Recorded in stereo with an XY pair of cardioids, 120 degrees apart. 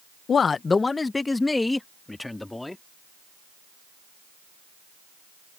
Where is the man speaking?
40° left; by 2.8 s 10° left.